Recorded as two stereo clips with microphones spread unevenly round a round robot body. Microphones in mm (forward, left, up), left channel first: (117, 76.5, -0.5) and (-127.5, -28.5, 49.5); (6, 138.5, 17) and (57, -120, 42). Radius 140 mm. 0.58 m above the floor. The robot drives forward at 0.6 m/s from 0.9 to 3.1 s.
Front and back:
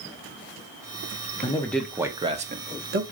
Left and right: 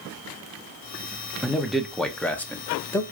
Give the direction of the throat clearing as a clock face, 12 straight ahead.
I don't hear throat clearing.